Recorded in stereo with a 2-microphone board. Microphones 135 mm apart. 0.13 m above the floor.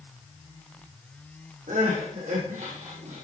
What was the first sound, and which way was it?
Crying, 75° right (ahead or behind).